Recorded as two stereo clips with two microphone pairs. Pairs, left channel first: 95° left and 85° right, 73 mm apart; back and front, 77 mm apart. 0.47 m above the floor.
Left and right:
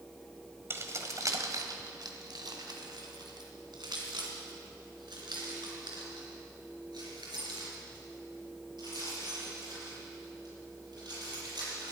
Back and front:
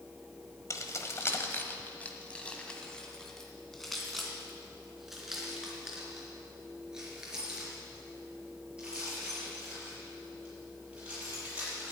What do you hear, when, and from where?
0.7 s keys jangling: 135° right, 1.4 m; by 11.9 s 75° right, 8 m